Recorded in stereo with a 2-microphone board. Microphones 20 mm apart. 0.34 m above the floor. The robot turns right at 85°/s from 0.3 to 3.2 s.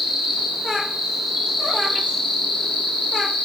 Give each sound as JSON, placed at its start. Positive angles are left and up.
{"t": 0.0, "sound": "an insect", "azimuth_deg": -140, "distance_m": 1.2}